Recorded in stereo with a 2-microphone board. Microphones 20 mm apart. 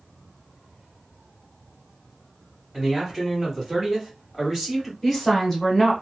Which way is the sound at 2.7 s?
25° right (ahead or behind).